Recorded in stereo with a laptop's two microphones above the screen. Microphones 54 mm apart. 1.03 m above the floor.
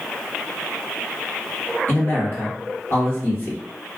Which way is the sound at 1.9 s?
45° left (ahead or behind).